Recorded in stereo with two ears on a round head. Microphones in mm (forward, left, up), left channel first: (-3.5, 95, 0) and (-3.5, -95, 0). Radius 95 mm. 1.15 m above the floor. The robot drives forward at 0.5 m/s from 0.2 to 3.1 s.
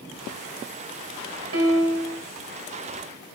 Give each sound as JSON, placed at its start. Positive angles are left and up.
{"t": 1.5, "sound": "a piano", "side_deg": -70, "distance_m": 2.0}